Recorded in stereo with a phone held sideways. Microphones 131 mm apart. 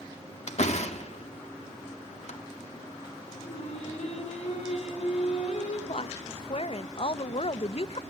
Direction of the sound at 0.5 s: 60° left (ahead or behind).